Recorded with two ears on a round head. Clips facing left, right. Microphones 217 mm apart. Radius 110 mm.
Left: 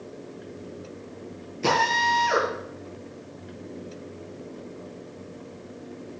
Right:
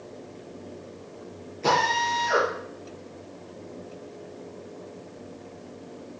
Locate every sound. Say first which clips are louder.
1.6 s a drill: even; 50° left (ahead or behind), 8 m